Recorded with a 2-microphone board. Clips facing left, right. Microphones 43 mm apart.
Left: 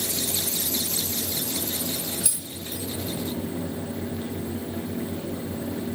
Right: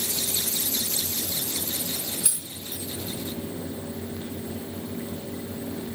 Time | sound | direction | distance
2.2 | keys jangling | 10° right (ahead or behind) | 2.5 m